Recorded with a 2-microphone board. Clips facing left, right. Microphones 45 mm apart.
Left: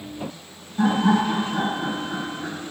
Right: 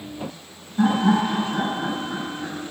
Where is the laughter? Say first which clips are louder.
Even; 10° right (ahead or behind), 1.8 m; by 2.5 s 25° right (ahead or behind), 2.0 m.